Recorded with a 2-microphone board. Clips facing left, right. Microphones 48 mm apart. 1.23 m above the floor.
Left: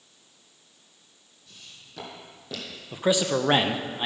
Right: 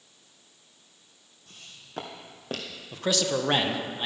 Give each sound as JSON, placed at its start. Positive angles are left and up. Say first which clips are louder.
{"t": 1.5, "sound": "footsteps", "louder": "even", "side_deg": -45, "distance_m": 2.0}
{"t": 2.9, "sound": "a man speaking", "louder": "left 3 dB", "side_deg": 15, "distance_m": 0.7}